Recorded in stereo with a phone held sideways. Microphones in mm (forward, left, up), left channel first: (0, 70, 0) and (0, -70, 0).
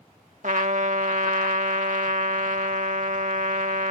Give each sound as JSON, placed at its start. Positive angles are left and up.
{"t": 0.4, "sound": "a trumpet", "side_deg": -65}